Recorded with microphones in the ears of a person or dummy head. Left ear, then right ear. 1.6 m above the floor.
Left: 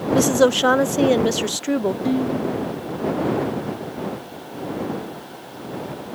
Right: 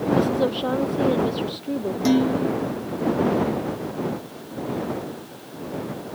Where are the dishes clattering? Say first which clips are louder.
Right 2 dB; 45° right (ahead or behind).